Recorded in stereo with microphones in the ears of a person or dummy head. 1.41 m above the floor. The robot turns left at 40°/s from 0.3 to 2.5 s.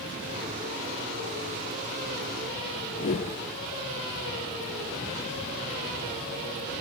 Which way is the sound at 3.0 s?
25° left (ahead or behind).